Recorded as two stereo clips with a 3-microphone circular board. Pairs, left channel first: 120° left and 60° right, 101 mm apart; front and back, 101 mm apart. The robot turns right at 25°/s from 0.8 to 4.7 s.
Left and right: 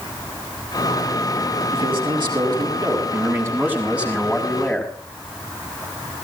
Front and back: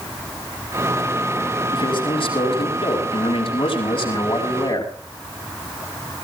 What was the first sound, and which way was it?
A man speaking, 40° right.